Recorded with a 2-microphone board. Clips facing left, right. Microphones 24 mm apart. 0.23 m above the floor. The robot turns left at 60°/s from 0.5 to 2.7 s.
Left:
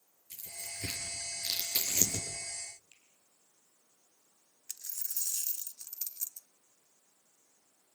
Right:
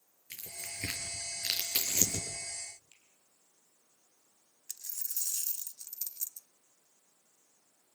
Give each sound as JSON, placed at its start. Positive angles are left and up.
{"t": 0.3, "sound": "tearing paper", "side_deg": -60, "distance_m": 5.5}
{"t": 2.9, "sound": "a finger snap", "side_deg": 20, "distance_m": 5.0}
{"t": 4.7, "sound": "a dropped coin", "side_deg": 30, "distance_m": 0.8}